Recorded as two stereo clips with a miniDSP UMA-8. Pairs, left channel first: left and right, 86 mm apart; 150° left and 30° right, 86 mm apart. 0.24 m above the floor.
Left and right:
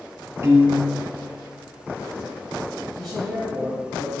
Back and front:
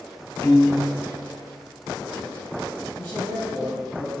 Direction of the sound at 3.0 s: 170° right.